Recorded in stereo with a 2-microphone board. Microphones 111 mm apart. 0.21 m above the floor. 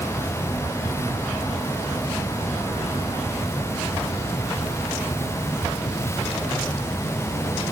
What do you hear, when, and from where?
Only background noise.